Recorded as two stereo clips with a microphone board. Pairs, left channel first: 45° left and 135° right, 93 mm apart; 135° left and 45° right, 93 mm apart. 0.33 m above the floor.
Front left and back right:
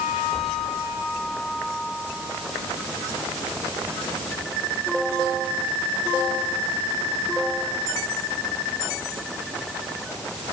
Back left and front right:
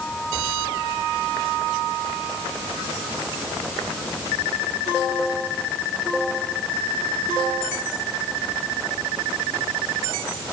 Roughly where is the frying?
I don't hear frying.